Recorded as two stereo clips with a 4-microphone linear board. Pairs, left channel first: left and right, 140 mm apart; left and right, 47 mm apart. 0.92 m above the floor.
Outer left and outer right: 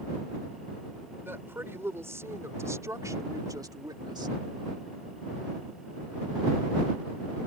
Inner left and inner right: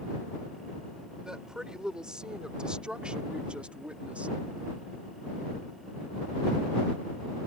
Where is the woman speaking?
15° right (ahead or behind); by 4.4 s 30° right (ahead or behind).